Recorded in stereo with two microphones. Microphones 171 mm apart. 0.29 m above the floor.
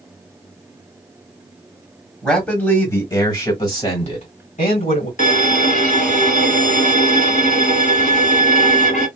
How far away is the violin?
About 1.3 m.